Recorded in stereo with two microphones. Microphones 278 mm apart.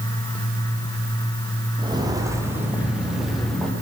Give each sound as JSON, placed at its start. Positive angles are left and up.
{"t": 1.8, "sound": "footsteps", "side_deg": -15, "distance_m": 3.5}